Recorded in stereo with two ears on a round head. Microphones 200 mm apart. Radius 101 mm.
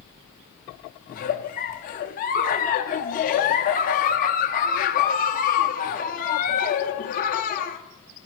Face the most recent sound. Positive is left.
turn(degrees=35)  # may be behind; listen again after turning